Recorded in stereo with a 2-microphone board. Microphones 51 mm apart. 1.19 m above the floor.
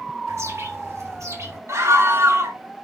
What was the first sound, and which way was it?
A bird, 80° right.